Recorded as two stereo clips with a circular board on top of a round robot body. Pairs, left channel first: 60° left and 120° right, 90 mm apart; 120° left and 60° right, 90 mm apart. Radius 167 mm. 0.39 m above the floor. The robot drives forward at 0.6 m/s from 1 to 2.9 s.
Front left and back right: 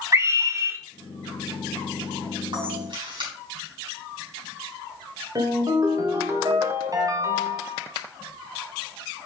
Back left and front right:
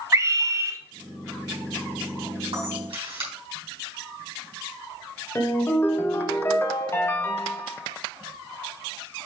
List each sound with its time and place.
0.1 s a scream: 90° right, 1.0 m
2.5 s a camera shutter: 80° right, 4 m; by 3.3 s 85° right, 4 m
5.3 s a ringtone: 175° right, 1.4 m